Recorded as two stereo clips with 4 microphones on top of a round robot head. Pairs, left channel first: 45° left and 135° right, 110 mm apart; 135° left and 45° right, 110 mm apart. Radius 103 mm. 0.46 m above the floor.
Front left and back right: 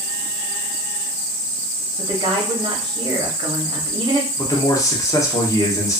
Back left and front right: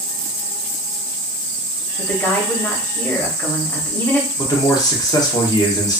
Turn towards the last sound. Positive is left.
turn(degrees=95)